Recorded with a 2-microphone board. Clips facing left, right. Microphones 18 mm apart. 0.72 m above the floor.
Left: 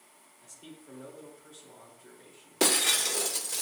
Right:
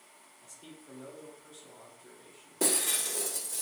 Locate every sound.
0.4 s a man speaking: 5° left (ahead or behind), 3 m
2.6 s breaking glass: 70° left (ahead or behind), 0.7 m